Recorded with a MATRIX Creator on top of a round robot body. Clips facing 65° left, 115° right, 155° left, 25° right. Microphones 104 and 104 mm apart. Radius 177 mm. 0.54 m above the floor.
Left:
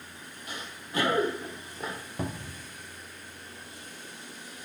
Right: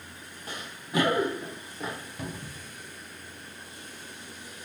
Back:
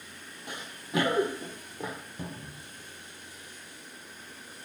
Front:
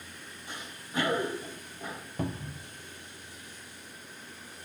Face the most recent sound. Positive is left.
turn(degrees=10)